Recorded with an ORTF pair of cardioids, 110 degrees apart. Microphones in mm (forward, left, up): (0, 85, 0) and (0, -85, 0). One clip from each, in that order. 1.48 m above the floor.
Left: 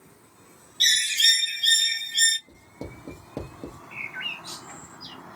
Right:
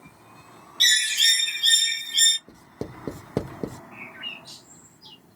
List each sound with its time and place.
0.8 s a bird: 20° right, 0.7 m
2.5 s writing: 45° right, 0.6 m
3.9 s a bird: 70° left, 1.2 m